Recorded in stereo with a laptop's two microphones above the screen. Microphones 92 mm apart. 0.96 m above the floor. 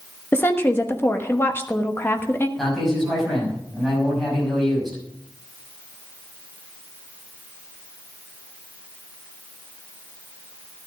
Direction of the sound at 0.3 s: 25° left (ahead or behind).